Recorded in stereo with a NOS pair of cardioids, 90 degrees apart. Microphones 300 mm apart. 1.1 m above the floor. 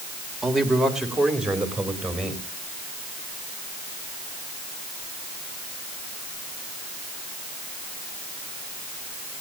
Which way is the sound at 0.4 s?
Straight ahead.